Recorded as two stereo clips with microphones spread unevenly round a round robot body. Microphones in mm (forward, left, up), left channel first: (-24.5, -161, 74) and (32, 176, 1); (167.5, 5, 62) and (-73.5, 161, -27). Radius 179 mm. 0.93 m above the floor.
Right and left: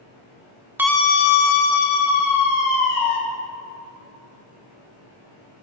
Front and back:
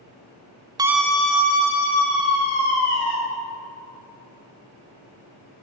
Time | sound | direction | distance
0.8 | a scream | 135° left | 0.5 m